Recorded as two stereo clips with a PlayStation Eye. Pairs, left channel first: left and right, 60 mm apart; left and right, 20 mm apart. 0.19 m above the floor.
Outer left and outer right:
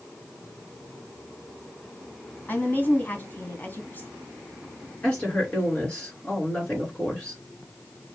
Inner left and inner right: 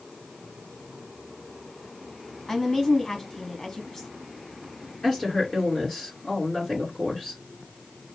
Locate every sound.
2.5 s a woman speaking: 30° left (ahead or behind), 1.5 m
5.0 s a woman speaking: 20° left (ahead or behind), 3 m